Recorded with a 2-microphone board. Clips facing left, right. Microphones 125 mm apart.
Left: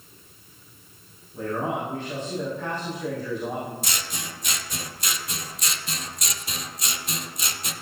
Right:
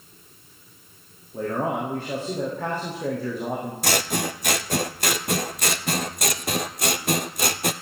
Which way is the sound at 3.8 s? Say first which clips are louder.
Right 10 dB; 60° right (ahead or behind).